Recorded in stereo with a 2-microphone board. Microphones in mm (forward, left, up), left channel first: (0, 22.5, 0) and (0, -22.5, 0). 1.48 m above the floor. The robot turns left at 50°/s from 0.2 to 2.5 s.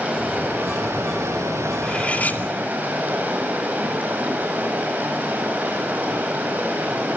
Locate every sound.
0.0 s running water: 30° right, 9 m; by 7.2 s 145° right, 9 m
1.8 s cutlery clinking: 15° left (ahead or behind), 2.5 m; by 2.4 s 45° left (ahead or behind), 2.5 m